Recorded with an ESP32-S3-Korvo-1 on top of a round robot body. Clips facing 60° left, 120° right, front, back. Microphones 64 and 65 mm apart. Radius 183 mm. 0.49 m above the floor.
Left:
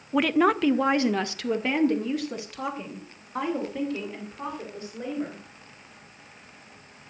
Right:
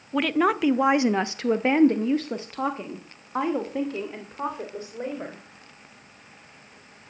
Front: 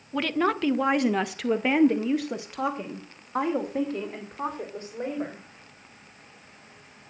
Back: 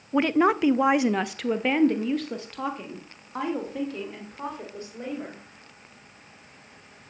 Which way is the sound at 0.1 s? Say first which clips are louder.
Left 1 dB, back 4 dB; 140° left.